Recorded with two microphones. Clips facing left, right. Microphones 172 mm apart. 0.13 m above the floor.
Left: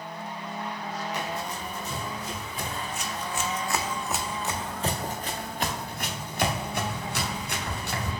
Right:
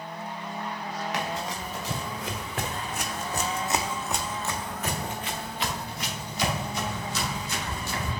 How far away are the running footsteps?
About 1.4 m.